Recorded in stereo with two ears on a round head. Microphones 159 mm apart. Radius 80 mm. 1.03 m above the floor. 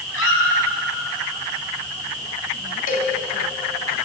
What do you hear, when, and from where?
0.1 s a squeak: 80° left, 6.5 m
2.9 s a cowbell: 50° left (ahead or behind), 3.5 m